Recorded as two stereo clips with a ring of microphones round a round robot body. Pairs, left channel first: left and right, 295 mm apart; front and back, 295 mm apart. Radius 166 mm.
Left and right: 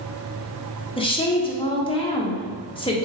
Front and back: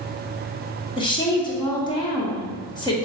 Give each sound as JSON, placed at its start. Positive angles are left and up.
{"t": 1.0, "sound": "a woman speaking", "azimuth_deg": 50, "distance_m": 0.8}